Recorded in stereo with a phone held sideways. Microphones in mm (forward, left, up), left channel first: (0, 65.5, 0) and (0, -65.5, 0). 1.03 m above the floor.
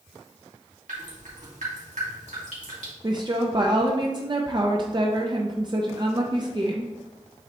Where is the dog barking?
I don't hear a dog barking.